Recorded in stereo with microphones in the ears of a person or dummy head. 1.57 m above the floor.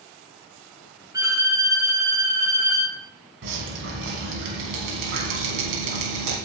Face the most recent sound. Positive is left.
turn(degrees=-65)  # may be behind; listen again after turning